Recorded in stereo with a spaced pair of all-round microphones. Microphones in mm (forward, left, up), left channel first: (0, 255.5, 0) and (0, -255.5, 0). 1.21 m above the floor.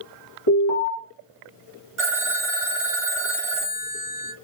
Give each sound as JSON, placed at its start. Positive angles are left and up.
{"t": 0.5, "sound": "an alarm", "side_deg": 50, "distance_m": 1.8}
{"t": 2.0, "sound": "a phone ringing", "side_deg": -70, "distance_m": 0.7}